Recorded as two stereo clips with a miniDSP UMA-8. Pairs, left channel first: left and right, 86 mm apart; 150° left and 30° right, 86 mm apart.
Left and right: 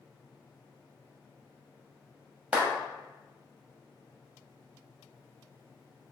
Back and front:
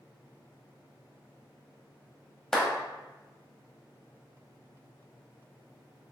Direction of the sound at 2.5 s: 130° right.